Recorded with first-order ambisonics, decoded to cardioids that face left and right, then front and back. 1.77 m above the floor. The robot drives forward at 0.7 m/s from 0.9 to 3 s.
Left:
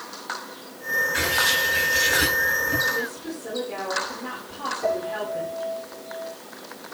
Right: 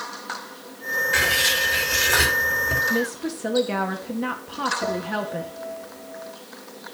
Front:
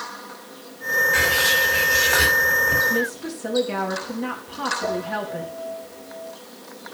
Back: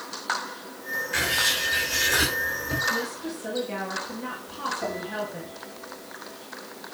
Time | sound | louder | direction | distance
1.1 | writing | right 4 dB, front 2 dB | 90° right | 7.5 m
2.9 | a woman speaking | right 3 dB, front 5 dB | 65° right | 2.5 m
4.8 | a piano | left 1 dB, front 5 dB | 115° right | 9 m